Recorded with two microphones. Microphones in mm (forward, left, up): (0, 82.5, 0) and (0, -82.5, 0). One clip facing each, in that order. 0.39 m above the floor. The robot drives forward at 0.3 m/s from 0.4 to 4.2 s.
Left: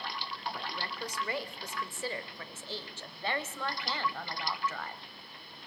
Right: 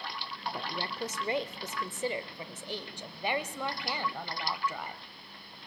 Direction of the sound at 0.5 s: 25° right (ahead or behind).